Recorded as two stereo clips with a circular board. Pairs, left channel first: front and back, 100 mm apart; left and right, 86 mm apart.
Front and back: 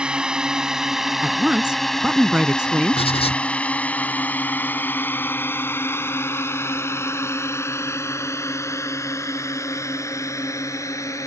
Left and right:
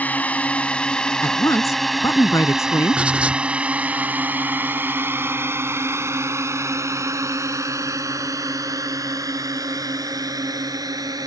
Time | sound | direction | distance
0.0 | a drone | 120° left | ?
1.2 | a woman speaking | 105° left | ?
2.9 | writing | 15° right | ?